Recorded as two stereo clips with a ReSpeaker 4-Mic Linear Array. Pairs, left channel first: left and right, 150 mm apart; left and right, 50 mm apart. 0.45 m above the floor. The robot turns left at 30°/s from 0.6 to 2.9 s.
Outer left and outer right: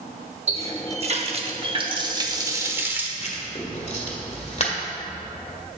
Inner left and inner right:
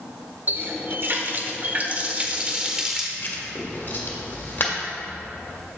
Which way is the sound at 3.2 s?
45° left (ahead or behind).